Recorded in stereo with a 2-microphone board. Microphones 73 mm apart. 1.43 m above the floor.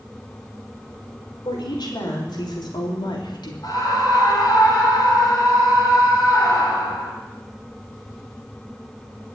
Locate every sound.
1.4 s a woman speaking: 80° left, 5 m; by 3.5 s 85° left, 3 m
3.6 s a scream: 60° left (ahead or behind), 6 m